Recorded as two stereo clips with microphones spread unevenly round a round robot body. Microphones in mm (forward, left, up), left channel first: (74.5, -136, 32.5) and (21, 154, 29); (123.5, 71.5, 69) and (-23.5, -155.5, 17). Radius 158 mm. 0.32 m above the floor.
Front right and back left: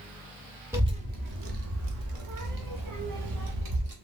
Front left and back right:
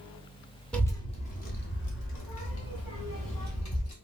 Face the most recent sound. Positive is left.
turn(degrees=100)